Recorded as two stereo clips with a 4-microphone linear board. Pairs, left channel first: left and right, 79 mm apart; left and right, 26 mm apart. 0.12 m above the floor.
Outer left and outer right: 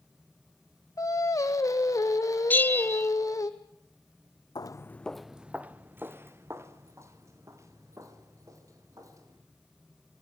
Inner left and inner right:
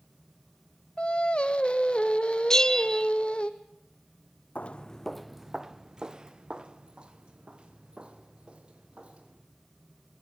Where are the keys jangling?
I don't hear keys jangling.